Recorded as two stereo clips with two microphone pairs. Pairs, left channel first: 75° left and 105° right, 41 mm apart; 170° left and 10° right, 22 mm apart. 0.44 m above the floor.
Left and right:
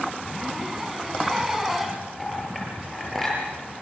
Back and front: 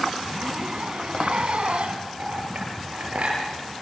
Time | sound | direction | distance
0.2 | a zipper | 20° right | 3 m
2.2 | a clink | 10° right | 7.5 m